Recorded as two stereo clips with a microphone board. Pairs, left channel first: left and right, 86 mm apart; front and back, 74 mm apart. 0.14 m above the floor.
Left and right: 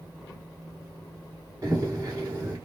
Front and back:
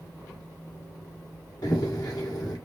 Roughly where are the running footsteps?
Ahead right.